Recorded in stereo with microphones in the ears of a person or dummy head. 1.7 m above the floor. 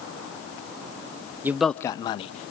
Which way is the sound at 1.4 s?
10° right (ahead or behind).